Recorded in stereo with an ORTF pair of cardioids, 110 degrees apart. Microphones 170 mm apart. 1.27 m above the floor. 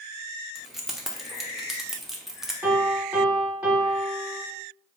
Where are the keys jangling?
Straight ahead, 0.7 m.